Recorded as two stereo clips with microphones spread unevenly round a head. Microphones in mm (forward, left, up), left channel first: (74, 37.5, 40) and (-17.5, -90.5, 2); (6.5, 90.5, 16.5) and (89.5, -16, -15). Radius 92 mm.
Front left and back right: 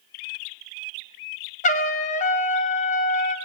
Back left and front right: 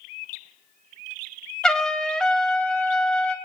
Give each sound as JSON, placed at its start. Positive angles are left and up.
{"t": 1.6, "sound": "a trumpet", "azimuth_deg": 55, "distance_m": 1.2}